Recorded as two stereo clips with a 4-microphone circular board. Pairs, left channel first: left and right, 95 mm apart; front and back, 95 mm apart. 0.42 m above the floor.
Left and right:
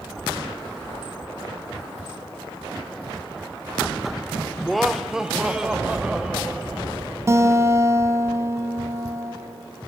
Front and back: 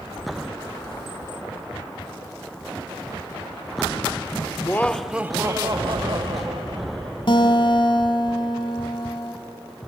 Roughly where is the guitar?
Ahead right.